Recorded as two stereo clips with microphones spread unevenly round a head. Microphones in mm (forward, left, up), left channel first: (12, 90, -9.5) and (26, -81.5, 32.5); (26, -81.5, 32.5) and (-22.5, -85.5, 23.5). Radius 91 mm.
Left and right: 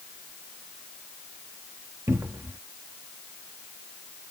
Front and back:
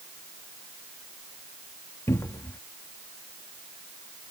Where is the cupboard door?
15° right.